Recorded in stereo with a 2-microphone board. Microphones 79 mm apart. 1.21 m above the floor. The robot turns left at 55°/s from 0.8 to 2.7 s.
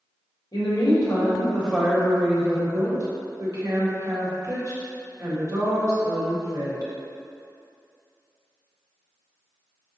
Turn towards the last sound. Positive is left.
turn(degrees=-45)